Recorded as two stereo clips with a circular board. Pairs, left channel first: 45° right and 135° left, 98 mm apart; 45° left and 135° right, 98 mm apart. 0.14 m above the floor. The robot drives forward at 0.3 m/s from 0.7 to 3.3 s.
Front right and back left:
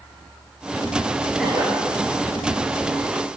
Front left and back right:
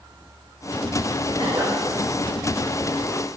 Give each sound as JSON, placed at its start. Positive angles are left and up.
{"t": 1.4, "sound": "a cough", "azimuth_deg": -145, "distance_m": 1.9}